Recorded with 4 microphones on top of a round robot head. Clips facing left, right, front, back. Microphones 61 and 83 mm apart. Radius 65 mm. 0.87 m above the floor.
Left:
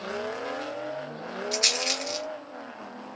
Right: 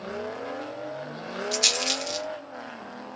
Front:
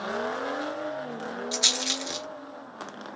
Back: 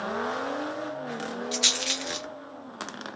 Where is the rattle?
55° left, 0.9 m.